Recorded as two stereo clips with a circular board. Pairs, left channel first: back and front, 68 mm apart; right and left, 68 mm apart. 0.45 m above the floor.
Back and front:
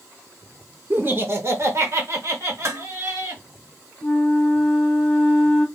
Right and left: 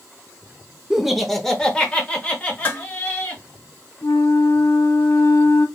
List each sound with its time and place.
0.9 s laughter: 15° left, 0.8 m; by 3.4 s 30° right, 2.0 m
2.6 s dishes clattering: 30° right, 1.0 m
4.0 s a flute: 75° right, 1.7 m